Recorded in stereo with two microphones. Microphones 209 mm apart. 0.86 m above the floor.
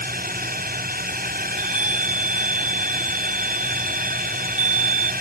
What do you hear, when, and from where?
0.0 s a drone: 45° right (ahead or behind)
1.5 s a chime: 75° right (ahead or behind)